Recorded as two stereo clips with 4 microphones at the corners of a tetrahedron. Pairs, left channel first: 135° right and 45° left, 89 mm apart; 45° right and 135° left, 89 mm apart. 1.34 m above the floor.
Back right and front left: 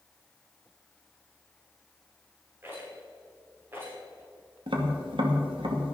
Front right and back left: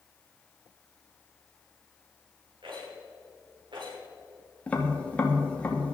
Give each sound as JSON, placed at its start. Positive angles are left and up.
{"t": 2.6, "sound": "a rattle", "azimuth_deg": 110, "distance_m": 5.5}
{"t": 4.7, "sound": "tapping", "azimuth_deg": 30, "distance_m": 2.5}